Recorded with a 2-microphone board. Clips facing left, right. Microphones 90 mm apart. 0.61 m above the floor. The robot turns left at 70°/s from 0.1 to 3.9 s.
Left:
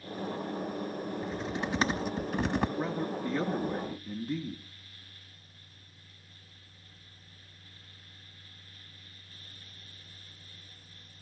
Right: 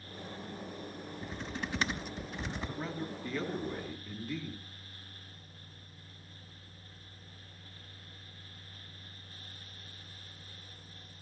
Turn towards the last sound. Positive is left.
turn(degrees=70)